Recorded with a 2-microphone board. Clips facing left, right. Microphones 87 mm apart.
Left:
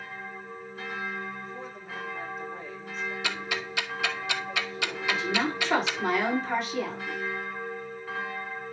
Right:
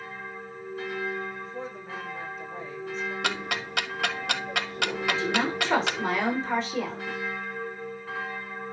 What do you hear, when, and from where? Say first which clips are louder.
1.4 s a woman speaking: right 3 dB; 30° right (ahead or behind), 5.5 m
3.2 s ticking: right 2 dB; 60° right (ahead or behind), 1.0 m
5.1 s a woman speaking: even; 25° right (ahead or behind), 7 m